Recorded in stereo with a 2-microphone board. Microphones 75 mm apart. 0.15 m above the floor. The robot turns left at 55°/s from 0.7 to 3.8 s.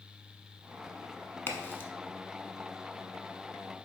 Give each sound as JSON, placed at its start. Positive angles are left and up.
{"t": 1.5, "sound": "a crack", "side_deg": 30, "distance_m": 0.7}